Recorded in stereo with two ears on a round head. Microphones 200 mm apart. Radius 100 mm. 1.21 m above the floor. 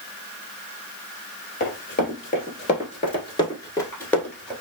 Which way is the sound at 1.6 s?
45° left (ahead or behind).